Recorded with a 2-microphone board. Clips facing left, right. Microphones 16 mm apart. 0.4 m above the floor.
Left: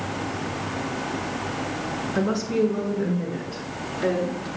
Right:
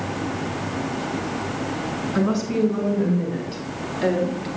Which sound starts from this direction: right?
A woman speaking, at 2.1 s.